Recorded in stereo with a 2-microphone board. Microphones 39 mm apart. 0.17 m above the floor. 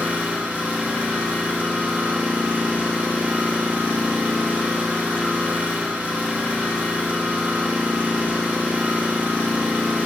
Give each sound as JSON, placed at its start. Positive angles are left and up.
{"t": 0.0, "sound": "an engine running", "side_deg": -55, "distance_m": 1.5}